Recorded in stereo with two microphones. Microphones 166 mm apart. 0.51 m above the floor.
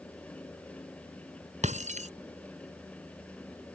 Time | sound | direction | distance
1.6 | breaking glass | 45° right (ahead or behind) | ?